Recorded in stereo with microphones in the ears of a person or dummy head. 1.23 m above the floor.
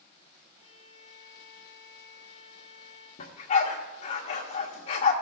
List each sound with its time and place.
0.6 s a violin: 20° right (ahead or behind), 4 m
3.2 s a dog barking: 35° left (ahead or behind), 1.3 m